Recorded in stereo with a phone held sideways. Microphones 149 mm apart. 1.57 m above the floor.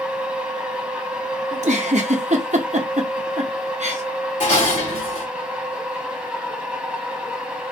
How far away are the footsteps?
No footsteps in this recording.